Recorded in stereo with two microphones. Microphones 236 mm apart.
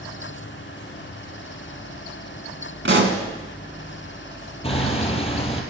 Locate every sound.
2.9 s a pop: 55° right (ahead or behind), 1.8 m
4.6 s hammering: 25° left (ahead or behind), 2.0 m